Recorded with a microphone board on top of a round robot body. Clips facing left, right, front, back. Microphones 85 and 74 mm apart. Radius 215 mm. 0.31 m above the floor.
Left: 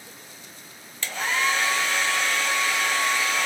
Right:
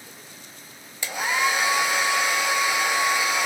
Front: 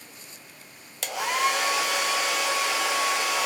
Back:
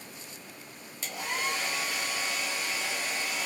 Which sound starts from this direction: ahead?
A hair dryer, at 1.0 s.